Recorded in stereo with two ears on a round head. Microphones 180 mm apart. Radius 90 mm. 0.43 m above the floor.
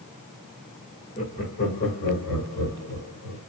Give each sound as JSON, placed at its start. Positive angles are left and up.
{"t": 1.2, "sound": "laughter", "side_deg": 35, "distance_m": 1.1}